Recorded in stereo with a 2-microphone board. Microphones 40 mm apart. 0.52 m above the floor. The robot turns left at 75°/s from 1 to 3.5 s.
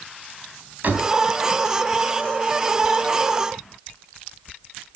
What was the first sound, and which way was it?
A door slam, 45° right (ahead or behind).